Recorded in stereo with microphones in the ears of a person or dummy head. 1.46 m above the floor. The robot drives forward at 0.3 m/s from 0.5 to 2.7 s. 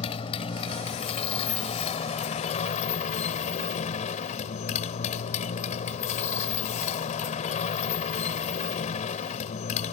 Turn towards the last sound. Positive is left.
turn(degrees=40)  # may be behind; listen again after turning